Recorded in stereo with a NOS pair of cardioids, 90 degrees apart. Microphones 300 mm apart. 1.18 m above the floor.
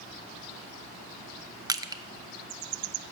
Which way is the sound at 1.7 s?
10° right.